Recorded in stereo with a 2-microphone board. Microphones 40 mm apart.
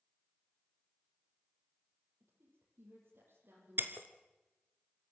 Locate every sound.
2.2 s a woman speaking: 65° right (ahead or behind), 5.5 m
3.8 s breaking glass: 55° right (ahead or behind), 1.4 m